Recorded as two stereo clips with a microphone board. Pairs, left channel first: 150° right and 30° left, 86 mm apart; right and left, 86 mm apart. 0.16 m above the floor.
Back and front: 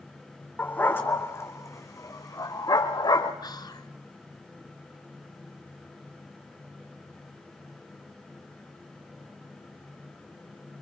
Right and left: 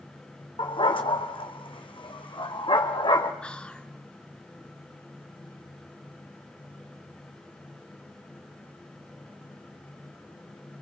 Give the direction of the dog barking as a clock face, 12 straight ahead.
3 o'clock.